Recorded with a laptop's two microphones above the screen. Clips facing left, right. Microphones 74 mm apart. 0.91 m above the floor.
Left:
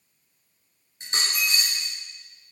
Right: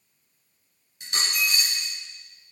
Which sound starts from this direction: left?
A dropped coin, at 1.0 s.